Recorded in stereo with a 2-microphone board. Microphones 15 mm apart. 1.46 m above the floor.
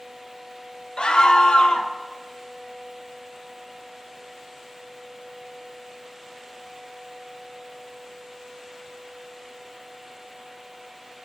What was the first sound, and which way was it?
A scream, 80° left.